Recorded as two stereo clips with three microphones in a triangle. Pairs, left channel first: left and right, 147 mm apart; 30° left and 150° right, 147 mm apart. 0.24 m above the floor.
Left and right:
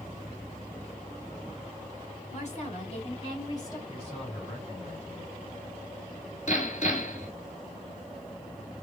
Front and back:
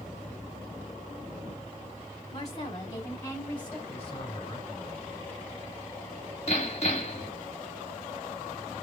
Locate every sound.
2.3 s a woman speaking: 80° left, 2.5 m; by 3.8 s 105° left, 1.6 m
3.9 s a man speaking: 60° left, 2.5 m
6.5 s hammering: 70° left, 2 m